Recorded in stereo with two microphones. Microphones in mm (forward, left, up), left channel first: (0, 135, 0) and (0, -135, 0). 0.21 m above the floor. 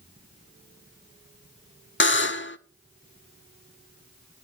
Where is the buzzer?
45° left (ahead or behind), 0.6 m.